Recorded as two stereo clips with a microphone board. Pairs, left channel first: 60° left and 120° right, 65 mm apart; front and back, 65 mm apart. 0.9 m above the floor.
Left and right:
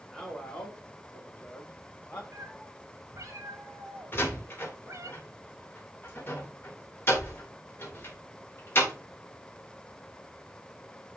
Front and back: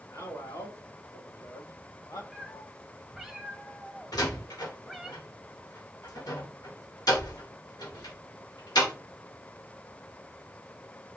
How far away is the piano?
No piano in this recording.